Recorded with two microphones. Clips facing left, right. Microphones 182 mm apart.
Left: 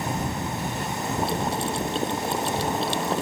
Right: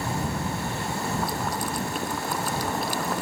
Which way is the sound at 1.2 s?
25° left (ahead or behind).